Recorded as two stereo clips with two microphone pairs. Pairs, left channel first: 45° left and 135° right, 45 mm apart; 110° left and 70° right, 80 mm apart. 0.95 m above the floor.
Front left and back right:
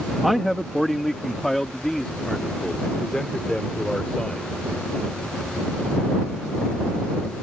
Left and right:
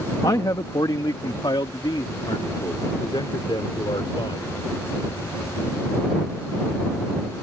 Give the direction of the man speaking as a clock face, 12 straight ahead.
7 o'clock.